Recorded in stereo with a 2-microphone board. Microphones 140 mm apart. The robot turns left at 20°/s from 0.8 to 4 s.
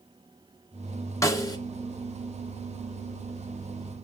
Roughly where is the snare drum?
Left.